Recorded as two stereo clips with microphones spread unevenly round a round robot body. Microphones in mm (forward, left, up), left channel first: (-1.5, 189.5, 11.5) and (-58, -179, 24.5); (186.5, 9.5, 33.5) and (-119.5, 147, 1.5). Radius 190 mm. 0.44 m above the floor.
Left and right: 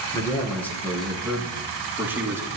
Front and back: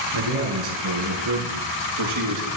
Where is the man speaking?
165° left, 5.5 m; by 2.5 s straight behind, 6 m.